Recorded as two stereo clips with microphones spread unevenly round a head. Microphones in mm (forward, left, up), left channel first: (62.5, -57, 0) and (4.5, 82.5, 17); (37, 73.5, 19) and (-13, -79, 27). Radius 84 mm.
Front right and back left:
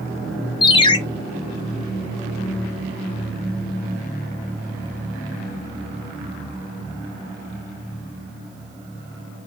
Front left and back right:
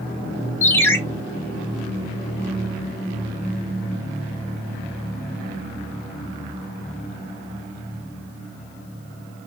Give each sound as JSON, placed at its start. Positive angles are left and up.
{"t": 0.6, "sound": "a ringtone", "azimuth_deg": -5, "distance_m": 0.6}